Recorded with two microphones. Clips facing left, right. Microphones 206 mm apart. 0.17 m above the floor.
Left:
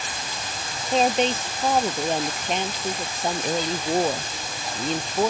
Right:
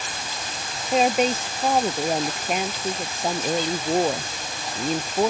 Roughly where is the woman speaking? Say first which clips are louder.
Right 1 dB; centre.